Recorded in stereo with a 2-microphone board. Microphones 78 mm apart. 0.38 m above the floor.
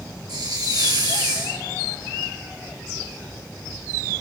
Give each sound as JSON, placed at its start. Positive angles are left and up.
{"t": 0.3, "sound": "a hiss", "side_deg": -75, "distance_m": 3.0}